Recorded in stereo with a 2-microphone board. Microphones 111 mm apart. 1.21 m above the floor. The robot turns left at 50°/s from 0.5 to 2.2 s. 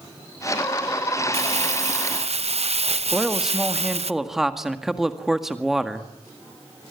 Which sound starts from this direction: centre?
A man speaking, at 3.1 s.